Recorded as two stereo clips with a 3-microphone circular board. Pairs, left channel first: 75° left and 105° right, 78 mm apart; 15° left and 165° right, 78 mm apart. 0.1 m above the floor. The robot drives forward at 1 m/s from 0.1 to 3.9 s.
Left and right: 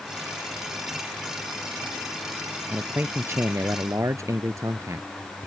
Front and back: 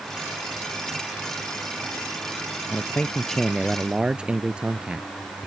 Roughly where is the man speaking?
Ahead right.